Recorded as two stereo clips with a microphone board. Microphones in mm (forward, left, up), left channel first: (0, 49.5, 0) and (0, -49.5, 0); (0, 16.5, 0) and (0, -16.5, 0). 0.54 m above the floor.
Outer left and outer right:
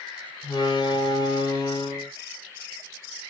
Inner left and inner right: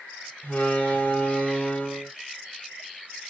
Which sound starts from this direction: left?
A door slam, at 0.4 s.